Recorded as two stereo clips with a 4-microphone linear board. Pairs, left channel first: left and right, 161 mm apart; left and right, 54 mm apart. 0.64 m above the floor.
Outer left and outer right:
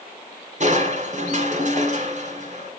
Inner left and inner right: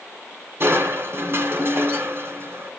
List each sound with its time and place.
0.6 s crushing: 50° right (ahead or behind), 2 m